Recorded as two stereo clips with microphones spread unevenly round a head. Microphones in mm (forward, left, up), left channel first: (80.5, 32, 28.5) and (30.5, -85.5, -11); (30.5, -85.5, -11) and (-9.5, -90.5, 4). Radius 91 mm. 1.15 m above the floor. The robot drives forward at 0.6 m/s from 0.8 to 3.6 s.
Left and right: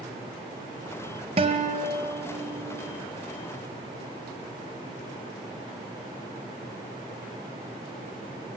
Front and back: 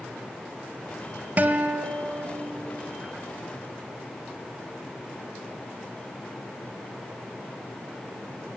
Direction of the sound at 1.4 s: Straight behind.